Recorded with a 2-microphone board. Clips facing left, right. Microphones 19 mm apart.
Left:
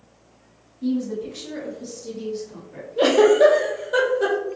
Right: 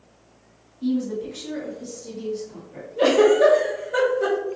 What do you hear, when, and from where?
0.8 s a woman speaking: 30° right (ahead or behind), 1.2 m; by 2.9 s 25° left (ahead or behind), 1.8 m
3.0 s a giggle: 60° left (ahead or behind), 1.2 m